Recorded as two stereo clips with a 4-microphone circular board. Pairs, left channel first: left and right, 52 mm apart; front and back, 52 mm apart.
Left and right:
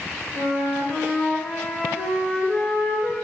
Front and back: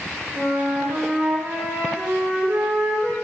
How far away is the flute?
About 1.4 m.